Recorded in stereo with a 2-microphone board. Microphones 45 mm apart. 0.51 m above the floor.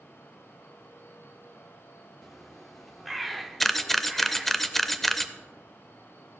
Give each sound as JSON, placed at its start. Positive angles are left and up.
{"t": 2.2, "sound": "a bird", "side_deg": 0, "distance_m": 0.9}
{"t": 3.6, "sound": "a camera shutter", "side_deg": 5, "distance_m": 0.5}